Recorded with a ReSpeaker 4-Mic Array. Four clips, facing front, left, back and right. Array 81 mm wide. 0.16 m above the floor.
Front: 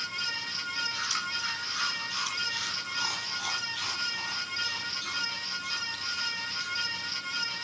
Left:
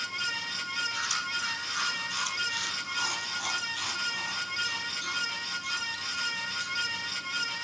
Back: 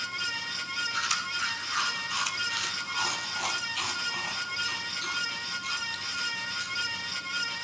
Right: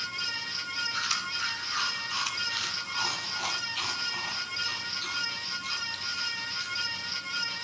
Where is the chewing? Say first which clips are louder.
Even, back 3 dB; 150° right, 5 m.